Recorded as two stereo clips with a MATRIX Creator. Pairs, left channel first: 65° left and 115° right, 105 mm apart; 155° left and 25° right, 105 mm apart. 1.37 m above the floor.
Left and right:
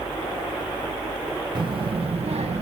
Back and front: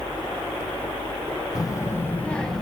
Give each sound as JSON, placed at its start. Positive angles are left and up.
{"t": 1.6, "sound": "a child speaking", "azimuth_deg": -150, "distance_m": 0.6}